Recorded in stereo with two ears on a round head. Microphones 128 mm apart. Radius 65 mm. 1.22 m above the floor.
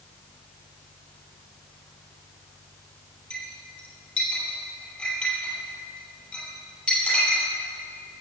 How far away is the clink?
About 6 m.